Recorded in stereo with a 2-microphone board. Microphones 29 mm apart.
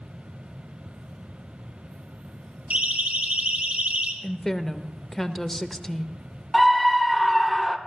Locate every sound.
2.7 s a siren: 65° right (ahead or behind), 4.5 m; by 4.1 s 60° right (ahead or behind), 3.5 m
4.2 s a woman speaking: 10° left (ahead or behind), 1.0 m
6.5 s a scream: centre (ahead or behind), 1.6 m